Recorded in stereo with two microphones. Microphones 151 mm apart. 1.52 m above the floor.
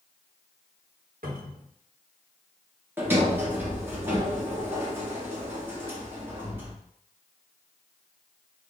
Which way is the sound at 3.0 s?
15° right (ahead or behind).